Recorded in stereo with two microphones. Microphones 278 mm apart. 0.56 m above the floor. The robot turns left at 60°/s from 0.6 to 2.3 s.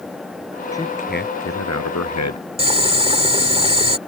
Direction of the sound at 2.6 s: 20° right (ahead or behind).